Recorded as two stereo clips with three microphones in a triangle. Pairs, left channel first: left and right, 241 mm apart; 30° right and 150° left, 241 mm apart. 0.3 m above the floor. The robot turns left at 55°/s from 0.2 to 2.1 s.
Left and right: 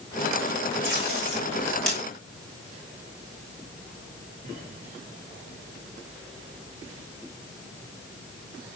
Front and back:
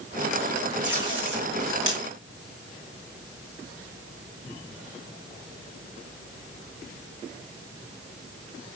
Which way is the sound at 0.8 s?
125° right.